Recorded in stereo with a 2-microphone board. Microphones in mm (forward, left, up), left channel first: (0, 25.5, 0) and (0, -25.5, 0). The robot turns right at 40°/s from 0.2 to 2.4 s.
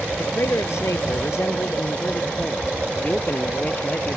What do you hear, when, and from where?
0.2 s a man speaking: 60° left; by 4.2 s 145° left